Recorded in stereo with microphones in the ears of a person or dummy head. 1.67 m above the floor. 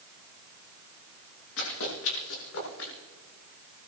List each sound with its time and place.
1.6 s running footsteps: 80° left, 9.5 m